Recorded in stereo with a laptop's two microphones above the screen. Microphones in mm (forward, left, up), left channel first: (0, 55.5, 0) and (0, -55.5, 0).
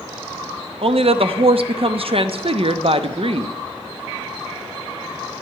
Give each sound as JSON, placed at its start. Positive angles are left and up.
{"t": 0.8, "sound": "a woman speaking", "side_deg": -60, "distance_m": 0.8}